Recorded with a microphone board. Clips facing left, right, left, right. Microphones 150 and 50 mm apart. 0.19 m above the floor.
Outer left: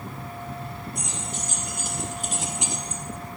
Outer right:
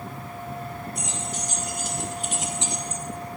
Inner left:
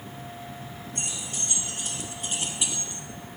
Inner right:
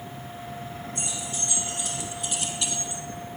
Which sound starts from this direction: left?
Keys jangling, at 0.9 s.